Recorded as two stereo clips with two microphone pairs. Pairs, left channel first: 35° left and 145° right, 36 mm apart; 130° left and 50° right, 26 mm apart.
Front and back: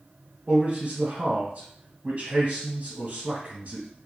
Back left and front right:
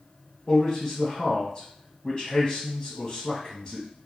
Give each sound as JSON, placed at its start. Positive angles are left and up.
{"t": 0.5, "sound": "a man speaking", "azimuth_deg": 175, "distance_m": 1.6}